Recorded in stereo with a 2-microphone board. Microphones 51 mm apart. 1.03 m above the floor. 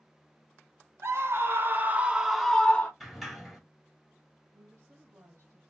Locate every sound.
1.0 s a scream: 60° right (ahead or behind), 0.9 m; by 2.9 s 25° left (ahead or behind), 0.6 m
3.0 s a sliding door: centre (ahead or behind), 1.8 m
4.5 s a woman speaking: 80° right, 1.7 m